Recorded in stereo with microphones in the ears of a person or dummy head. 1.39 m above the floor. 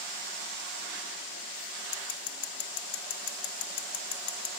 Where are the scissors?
70° left (ahead or behind), 1.9 m.